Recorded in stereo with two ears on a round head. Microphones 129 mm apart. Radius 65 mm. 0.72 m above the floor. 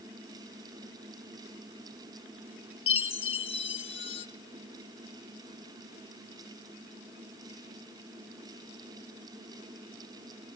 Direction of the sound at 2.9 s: 40° left (ahead or behind).